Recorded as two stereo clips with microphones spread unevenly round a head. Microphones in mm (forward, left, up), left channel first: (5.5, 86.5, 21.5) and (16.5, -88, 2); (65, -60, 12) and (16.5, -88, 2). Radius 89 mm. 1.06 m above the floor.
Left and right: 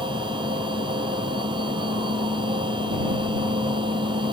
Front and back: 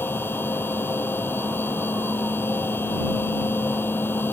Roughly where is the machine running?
Ahead.